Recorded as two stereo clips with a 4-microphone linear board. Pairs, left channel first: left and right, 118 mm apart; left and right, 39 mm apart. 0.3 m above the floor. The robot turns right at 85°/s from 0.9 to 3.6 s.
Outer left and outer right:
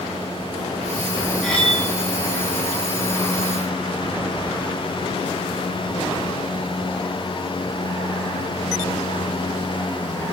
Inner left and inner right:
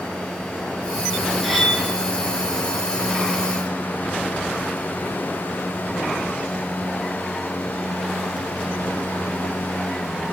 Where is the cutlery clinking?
Straight ahead, 1.1 m; by 1.8 s 35° left, 1.1 m.